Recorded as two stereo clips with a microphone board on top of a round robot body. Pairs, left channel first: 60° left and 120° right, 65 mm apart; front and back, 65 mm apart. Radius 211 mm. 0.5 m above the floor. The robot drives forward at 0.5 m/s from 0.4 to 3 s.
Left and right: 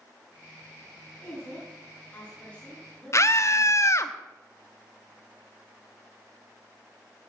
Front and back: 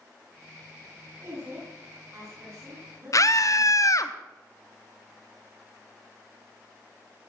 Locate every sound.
1.2 s a woman speaking: 130° left, 7 m; by 4.1 s 135° left, 7.5 m
3.1 s a scream: 25° left, 1.1 m